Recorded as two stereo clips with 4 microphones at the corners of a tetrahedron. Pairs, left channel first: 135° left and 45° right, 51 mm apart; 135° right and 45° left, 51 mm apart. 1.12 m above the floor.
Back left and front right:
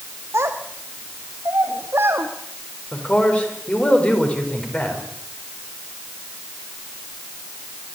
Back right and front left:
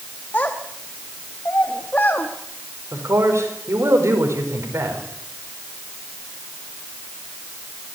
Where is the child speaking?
80° right, 1.3 m.